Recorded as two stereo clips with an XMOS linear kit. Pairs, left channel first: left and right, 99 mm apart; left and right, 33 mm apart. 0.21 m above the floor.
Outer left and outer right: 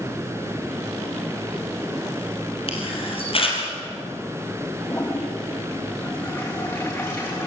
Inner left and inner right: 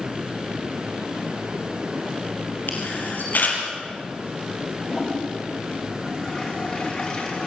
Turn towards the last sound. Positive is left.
turn(degrees=30)  # may be behind; listen again after turning